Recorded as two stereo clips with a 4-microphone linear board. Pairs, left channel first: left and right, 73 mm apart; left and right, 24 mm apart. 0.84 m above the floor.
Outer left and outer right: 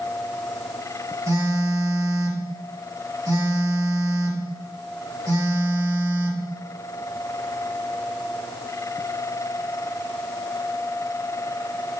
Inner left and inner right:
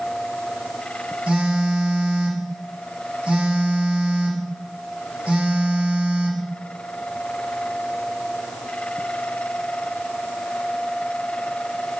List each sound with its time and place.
1.3 s a phone buzzing: 50° right (ahead or behind), 3 m